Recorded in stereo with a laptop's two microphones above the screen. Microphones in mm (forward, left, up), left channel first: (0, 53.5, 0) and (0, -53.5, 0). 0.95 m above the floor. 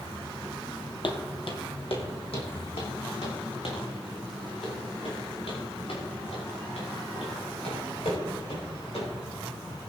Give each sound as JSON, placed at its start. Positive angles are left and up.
{"t": 1.0, "sound": "footsteps", "side_deg": 55, "distance_m": 1.5}